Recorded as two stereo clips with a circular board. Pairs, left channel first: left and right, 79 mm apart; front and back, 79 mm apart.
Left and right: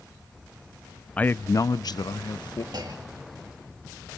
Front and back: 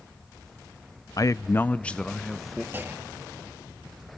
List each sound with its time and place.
1.2 s a man speaking: 25° left, 0.5 m; by 2.6 s 90° left, 1.2 m
2.7 s a clunk: 115° right, 2 m